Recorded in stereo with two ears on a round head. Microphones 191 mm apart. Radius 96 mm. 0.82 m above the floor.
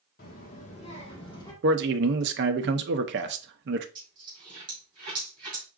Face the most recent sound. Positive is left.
turn(degrees=-20)  # may be behind; listen again after turning